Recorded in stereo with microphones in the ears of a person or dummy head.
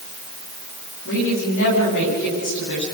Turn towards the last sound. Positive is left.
turn(degrees=55)  # may be behind; listen again after turning